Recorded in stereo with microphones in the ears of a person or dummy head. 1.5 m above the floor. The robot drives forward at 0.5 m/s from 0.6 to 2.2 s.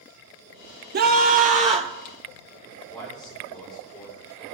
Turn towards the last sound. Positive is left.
turn(degrees=5)  # may be behind; listen again after turning